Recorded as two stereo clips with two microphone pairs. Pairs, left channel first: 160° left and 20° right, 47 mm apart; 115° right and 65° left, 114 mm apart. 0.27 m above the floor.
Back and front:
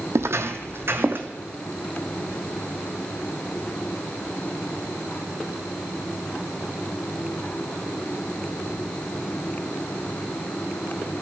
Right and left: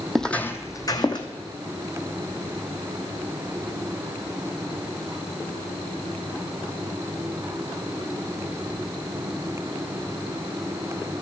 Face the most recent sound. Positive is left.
turn(degrees=-65)